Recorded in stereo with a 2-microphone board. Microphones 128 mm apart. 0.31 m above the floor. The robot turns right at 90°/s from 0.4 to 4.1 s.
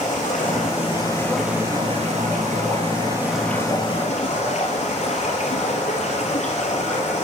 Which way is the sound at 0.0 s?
90° left.